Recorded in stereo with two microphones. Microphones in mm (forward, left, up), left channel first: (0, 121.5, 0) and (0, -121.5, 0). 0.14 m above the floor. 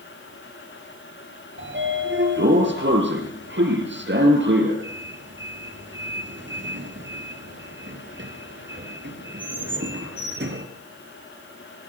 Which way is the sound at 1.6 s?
50° right (ahead or behind).